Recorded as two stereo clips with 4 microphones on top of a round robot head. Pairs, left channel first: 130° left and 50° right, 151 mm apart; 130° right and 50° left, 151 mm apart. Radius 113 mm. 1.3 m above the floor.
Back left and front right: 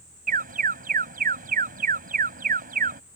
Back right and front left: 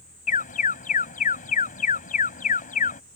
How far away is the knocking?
No knocking in this recording.